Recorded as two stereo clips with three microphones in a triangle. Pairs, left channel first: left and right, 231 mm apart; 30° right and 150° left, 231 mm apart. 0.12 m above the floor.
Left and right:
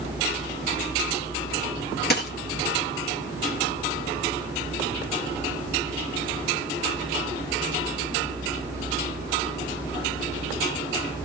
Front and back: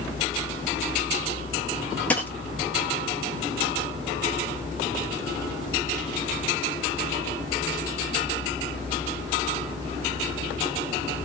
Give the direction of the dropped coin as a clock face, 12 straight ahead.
10 o'clock.